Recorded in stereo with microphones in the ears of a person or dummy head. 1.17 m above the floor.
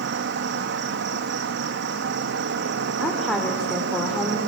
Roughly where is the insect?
Right.